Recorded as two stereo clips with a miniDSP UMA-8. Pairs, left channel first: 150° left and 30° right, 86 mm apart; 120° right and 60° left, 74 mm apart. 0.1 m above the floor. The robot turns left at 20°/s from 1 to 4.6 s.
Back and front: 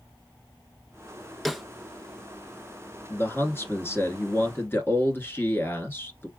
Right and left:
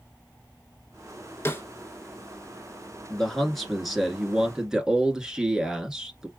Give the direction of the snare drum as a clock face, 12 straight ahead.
4 o'clock.